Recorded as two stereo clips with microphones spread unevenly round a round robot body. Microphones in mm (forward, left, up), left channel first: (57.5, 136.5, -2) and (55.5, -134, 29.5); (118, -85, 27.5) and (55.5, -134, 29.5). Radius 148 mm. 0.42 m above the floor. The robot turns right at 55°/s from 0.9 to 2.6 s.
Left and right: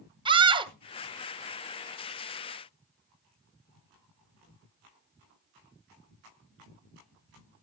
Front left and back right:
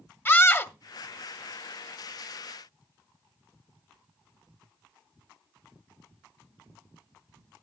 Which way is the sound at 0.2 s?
15° right.